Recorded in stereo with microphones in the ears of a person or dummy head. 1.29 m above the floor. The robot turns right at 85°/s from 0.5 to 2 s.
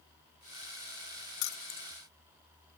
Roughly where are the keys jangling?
Left.